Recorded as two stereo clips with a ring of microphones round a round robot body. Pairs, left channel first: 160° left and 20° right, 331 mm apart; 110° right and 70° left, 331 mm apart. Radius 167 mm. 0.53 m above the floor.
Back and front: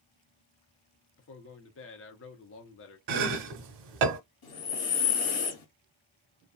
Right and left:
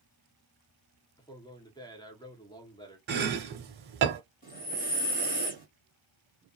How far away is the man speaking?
About 0.7 m.